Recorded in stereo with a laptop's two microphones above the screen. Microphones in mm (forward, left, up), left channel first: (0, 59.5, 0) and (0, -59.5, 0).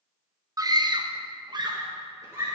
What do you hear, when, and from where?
0.6 s a scream: 35° right (ahead or behind), 1.1 m; by 2.5 s 25° right (ahead or behind), 1.8 m